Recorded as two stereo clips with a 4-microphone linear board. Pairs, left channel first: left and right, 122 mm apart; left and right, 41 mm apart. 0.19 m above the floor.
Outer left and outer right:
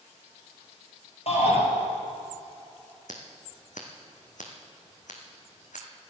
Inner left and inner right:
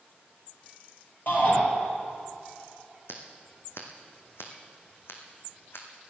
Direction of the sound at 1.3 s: 55° left (ahead or behind).